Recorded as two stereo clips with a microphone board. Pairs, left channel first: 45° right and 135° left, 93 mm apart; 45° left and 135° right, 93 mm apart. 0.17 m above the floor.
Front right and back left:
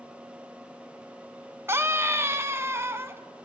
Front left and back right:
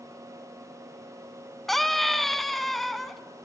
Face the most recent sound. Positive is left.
turn(degrees=130)